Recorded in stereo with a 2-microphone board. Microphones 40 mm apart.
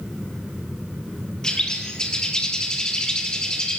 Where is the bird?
15° left (ahead or behind), 3.5 m.